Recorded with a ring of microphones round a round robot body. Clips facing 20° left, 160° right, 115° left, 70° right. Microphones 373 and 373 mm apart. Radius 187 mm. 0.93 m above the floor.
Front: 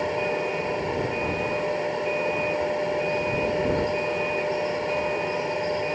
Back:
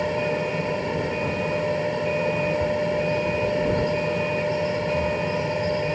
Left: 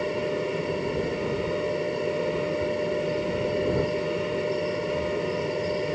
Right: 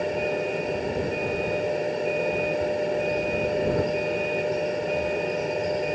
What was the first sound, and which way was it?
A vehicle, 165° right.